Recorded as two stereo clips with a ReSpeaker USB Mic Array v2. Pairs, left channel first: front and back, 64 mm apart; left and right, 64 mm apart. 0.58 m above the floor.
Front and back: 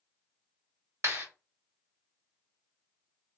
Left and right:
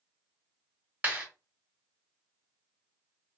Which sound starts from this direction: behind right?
A clap, at 1.0 s.